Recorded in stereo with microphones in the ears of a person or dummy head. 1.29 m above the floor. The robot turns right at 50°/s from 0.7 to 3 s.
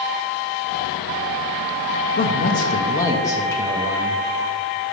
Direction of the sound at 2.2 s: 120° left.